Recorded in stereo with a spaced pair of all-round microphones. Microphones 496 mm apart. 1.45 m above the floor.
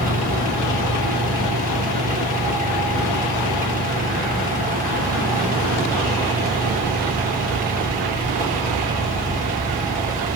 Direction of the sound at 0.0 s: 15° right (ahead or behind).